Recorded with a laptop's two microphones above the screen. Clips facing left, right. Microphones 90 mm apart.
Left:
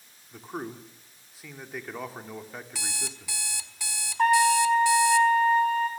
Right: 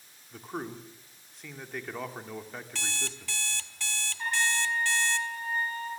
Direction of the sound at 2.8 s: 10° left (ahead or behind).